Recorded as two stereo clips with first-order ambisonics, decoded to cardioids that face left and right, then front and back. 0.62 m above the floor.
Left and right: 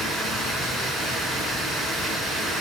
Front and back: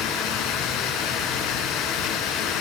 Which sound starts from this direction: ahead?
Running water, at 0.0 s.